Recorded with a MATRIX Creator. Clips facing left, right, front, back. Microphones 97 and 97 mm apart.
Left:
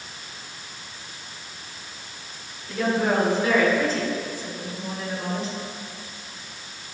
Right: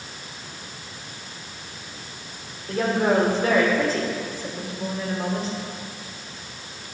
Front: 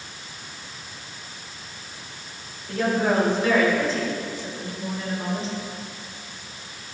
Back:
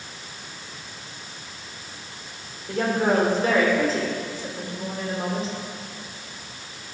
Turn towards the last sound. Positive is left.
turn(degrees=-135)